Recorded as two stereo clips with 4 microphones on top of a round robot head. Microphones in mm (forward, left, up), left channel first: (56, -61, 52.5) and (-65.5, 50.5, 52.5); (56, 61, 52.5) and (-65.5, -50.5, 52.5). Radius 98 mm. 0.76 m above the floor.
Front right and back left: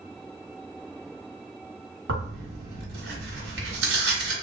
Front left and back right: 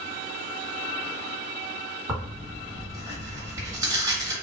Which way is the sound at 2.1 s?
150° left.